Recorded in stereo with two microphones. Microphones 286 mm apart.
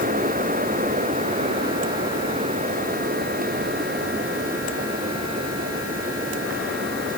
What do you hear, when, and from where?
Only background noise.